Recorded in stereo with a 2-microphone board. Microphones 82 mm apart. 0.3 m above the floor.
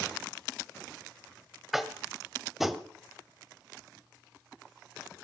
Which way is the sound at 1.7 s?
Centre (ahead or behind).